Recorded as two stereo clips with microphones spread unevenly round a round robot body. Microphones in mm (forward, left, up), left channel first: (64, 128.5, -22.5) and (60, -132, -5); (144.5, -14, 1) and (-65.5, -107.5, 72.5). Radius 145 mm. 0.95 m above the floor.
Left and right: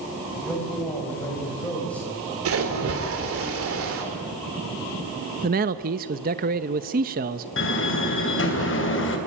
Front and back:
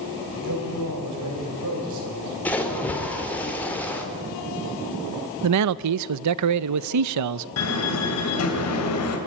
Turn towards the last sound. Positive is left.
turn(degrees=45)